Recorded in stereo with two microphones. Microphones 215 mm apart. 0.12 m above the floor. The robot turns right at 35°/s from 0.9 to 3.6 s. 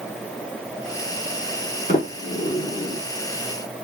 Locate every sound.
1.9 s a sliding door: 35° left (ahead or behind), 1.7 m; by 3.0 s 10° left (ahead or behind), 1.7 m